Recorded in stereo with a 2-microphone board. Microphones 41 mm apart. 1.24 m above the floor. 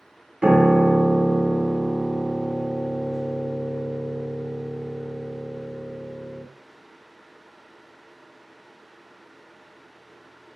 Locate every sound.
0.4 s a piano: 25° right (ahead or behind), 0.5 m